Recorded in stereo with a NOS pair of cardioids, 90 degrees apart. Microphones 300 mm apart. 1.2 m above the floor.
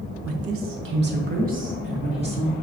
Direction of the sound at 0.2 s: 55° right.